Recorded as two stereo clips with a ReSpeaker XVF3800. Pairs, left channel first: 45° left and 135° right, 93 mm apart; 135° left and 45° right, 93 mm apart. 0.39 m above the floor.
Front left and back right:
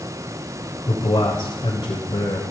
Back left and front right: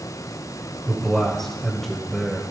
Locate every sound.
0.9 s a man speaking: 50° left, 1.4 m